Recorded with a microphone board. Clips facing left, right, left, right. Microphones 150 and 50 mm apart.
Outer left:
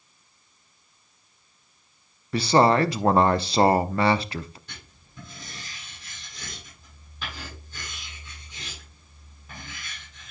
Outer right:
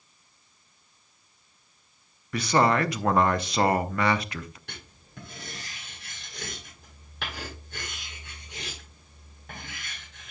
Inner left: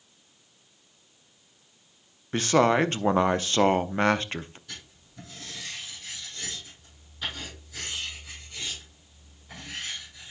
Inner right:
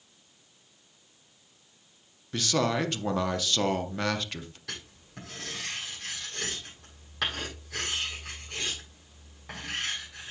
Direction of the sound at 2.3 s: 30° left (ahead or behind).